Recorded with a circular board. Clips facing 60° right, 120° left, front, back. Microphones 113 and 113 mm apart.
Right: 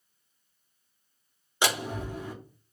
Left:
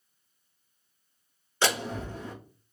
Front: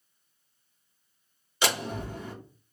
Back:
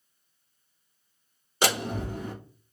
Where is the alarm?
No alarm in this recording.